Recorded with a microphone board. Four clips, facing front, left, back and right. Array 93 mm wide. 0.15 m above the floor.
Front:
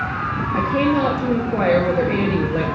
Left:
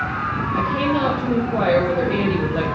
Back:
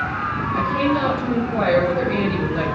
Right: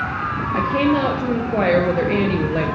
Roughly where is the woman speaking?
Ahead right.